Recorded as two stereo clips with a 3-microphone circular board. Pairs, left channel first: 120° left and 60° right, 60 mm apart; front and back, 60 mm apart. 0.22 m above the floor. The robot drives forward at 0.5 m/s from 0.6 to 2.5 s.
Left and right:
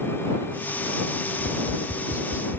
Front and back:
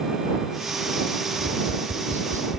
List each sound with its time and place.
1.4 s tapping: 140° left; by 2.6 s 150° left